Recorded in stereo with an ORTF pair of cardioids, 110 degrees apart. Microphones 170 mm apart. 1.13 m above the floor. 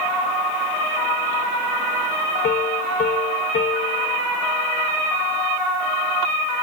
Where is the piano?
55° left.